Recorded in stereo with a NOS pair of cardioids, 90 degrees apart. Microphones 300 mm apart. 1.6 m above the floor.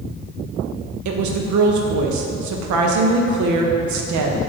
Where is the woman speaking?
70° right, 0.6 m.